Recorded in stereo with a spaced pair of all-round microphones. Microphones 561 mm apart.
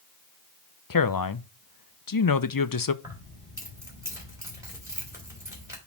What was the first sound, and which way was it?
A man speaking, 40° left (ahead or behind).